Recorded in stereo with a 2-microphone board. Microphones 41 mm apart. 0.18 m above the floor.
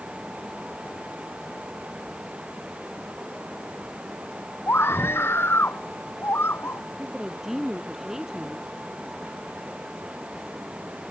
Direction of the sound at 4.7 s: 75° left (ahead or behind).